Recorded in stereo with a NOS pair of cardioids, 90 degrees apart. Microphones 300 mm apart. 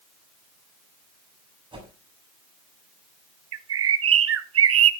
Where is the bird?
50° right, 1.1 m.